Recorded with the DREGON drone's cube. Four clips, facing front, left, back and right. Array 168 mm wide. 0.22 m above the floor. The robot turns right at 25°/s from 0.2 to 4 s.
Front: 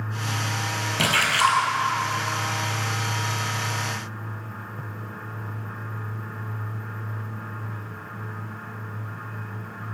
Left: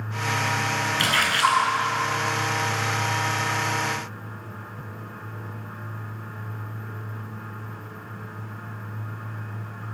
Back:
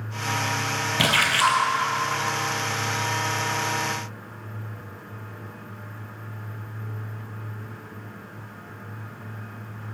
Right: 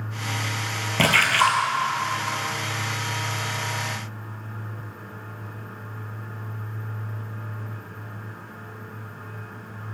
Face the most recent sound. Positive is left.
turn(degrees=-25)